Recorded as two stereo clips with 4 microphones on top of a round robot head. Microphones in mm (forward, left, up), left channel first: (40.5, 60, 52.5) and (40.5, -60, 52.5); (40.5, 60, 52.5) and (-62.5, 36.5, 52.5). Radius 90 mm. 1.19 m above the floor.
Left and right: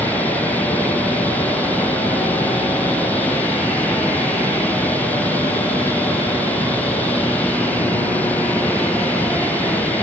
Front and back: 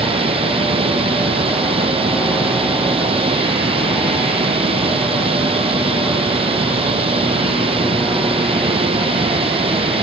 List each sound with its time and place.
0.0 s running water: 170° left